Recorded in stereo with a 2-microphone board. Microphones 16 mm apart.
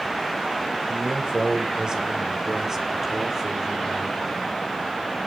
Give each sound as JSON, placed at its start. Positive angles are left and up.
{"t": 0.9, "sound": "a man speaking", "side_deg": -50, "distance_m": 4.0}